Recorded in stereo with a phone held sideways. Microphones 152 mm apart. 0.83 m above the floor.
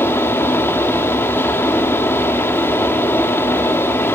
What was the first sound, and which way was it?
A fan, 15° left (ahead or behind).